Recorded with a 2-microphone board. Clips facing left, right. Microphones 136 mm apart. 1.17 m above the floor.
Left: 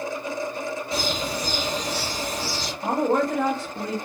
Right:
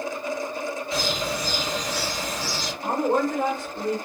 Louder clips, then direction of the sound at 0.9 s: Even; 35° left (ahead or behind).